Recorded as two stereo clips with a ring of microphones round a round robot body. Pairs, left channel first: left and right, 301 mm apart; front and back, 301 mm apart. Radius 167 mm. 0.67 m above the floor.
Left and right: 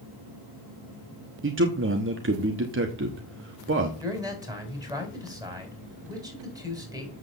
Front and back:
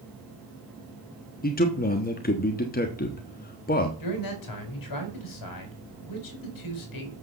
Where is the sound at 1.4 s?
55° right, 1.2 m.